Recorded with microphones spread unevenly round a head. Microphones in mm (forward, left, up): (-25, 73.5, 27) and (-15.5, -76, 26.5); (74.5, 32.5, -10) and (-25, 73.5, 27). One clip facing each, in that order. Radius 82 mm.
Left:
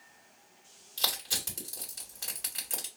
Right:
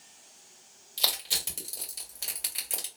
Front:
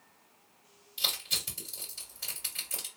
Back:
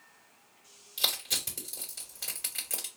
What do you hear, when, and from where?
1.0 s crushing: 170° right, 2 m